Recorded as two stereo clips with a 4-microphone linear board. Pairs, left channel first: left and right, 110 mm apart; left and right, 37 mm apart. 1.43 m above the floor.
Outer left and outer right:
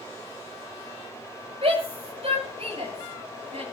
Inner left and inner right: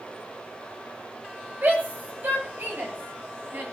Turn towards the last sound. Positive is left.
turn(degrees=-65)  # may be behind; listen again after turning